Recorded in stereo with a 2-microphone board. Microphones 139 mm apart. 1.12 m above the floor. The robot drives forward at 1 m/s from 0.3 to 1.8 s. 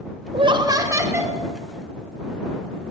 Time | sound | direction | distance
0.3 | laughter | 45° right (ahead or behind) | 0.6 m